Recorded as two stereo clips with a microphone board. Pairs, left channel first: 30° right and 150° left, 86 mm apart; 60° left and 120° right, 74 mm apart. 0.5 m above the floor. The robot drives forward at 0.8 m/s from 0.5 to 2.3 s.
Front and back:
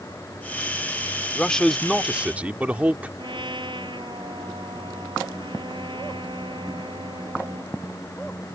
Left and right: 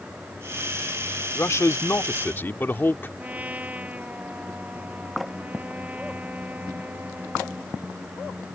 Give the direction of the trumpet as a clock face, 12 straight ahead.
6 o'clock.